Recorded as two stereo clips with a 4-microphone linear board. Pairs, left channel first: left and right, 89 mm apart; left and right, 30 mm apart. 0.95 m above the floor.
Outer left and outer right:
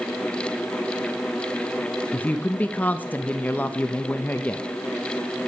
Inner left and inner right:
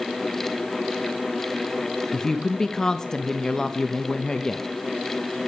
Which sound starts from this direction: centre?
A woman speaking, at 2.1 s.